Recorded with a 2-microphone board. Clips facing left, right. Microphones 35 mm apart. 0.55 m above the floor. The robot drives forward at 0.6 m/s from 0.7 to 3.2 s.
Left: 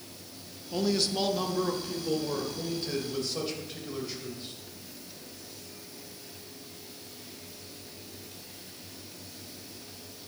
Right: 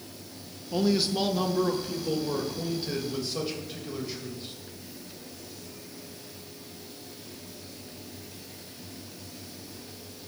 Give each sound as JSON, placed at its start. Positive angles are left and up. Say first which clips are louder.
{"t": 0.7, "sound": "a man speaking", "louder": "right 3 dB", "side_deg": -10, "distance_m": 0.7}